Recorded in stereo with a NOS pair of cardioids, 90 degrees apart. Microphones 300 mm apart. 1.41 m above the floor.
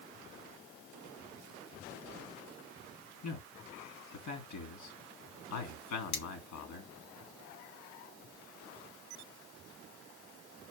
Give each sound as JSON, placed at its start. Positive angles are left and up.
{"t": 3.2, "sound": "a man speaking", "azimuth_deg": 70, "distance_m": 3.5}
{"t": 6.1, "sound": "cutlery clinking", "azimuth_deg": 70, "distance_m": 1.9}